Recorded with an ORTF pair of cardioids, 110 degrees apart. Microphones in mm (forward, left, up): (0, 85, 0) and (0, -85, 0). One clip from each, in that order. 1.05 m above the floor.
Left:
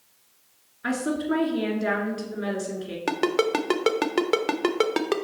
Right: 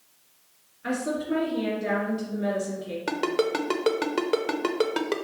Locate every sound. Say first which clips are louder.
0.8 s a woman speaking: left 2 dB; 45° left, 2.5 m
3.1 s a ringtone: left 2 dB; 20° left, 0.6 m